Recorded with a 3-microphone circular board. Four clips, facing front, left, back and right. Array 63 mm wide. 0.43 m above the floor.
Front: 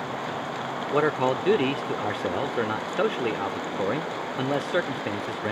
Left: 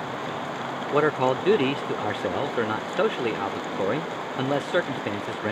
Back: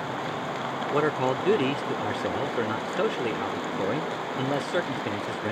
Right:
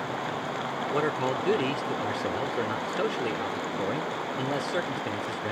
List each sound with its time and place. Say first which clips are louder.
0.9 s a man speaking: left 7 dB, front 2 dB; 65° left